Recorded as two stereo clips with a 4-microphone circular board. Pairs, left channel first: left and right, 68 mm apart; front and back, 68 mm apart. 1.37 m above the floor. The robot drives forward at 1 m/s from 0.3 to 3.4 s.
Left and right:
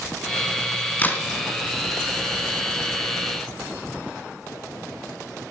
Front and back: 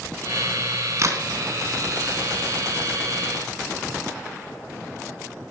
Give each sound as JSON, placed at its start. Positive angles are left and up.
{"t": 1.0, "sound": "a crack", "azimuth_deg": 150, "distance_m": 2.0}